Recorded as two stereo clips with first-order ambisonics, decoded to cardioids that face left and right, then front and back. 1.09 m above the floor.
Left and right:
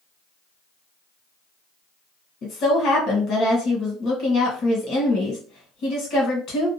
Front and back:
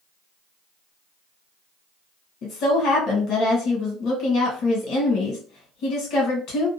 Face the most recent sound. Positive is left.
turn(degrees=40)